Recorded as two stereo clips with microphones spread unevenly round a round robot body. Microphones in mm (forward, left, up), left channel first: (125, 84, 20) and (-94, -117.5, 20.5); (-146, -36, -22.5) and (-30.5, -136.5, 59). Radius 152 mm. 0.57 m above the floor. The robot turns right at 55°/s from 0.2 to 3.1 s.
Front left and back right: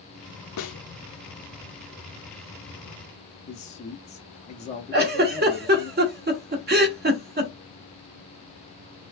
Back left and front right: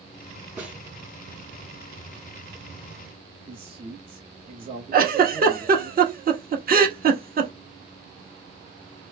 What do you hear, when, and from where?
0.6 s a snare drum: 55° left, 0.7 m; by 0.8 s 70° left, 0.7 m
3.5 s a man speaking: 40° left, 0.6 m
4.9 s a giggle: 85° right, 1.1 m